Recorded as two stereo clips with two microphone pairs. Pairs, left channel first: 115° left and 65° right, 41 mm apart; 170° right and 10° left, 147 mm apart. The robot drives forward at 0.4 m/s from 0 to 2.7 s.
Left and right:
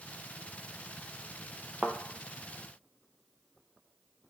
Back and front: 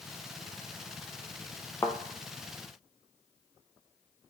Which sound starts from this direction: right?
A thud, at 1.8 s.